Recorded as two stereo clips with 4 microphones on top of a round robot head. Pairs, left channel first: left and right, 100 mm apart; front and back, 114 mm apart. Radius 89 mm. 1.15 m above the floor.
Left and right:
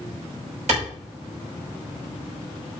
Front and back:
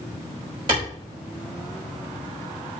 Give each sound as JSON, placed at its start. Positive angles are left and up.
{"t": 0.7, "sound": "a clap", "azimuth_deg": -120, "distance_m": 4.5}